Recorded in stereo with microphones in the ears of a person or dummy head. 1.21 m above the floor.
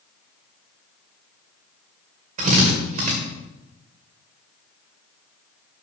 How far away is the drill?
About 2 m.